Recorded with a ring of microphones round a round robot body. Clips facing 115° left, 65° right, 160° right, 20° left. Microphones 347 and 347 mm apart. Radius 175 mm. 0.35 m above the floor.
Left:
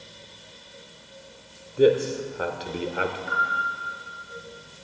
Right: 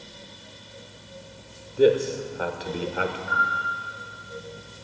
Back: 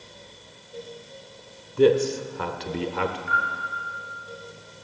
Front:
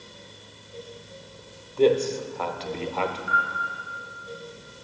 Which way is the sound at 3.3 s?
140° left.